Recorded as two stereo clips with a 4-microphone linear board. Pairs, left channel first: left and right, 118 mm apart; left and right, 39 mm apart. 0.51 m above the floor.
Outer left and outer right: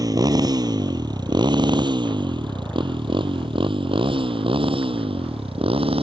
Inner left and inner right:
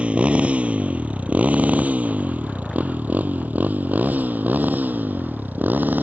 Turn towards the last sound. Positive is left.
turn(degrees=-50)  # may be behind; listen again after turning